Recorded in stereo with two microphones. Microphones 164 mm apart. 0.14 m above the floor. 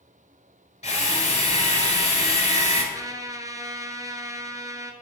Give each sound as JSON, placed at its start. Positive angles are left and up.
{"t": 0.8, "sound": "a drill", "side_deg": 45, "distance_m": 1.7}
{"t": 2.9, "sound": "a trumpet", "side_deg": -20, "distance_m": 0.7}